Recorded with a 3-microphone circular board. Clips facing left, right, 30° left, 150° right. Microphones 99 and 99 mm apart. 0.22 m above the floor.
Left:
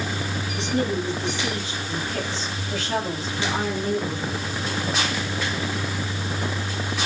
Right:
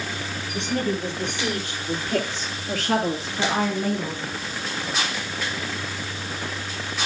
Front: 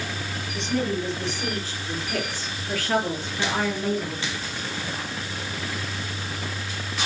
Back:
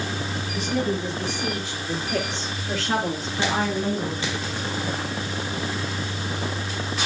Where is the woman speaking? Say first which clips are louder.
Left 1 dB, even; 70° right, 5.5 m; by 4.2 s 100° right, 5.5 m.